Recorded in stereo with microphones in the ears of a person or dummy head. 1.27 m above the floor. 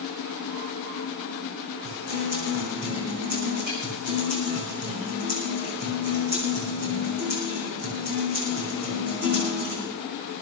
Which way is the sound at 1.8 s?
50° right (ahead or behind).